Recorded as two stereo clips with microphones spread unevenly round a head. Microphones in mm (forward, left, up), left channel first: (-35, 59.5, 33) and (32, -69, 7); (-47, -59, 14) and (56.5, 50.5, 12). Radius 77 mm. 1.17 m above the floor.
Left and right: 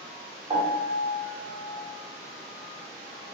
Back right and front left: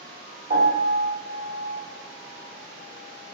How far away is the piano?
About 2.5 m.